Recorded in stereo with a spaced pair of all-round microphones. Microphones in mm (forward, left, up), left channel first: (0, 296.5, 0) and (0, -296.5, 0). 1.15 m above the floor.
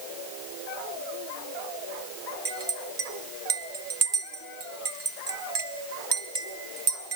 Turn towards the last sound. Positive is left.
turn(degrees=-45)  # may be behind; listen again after turning